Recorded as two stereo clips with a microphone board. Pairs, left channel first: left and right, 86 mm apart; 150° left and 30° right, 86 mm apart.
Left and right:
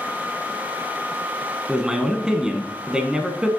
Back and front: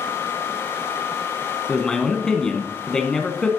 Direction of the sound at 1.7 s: 145° right.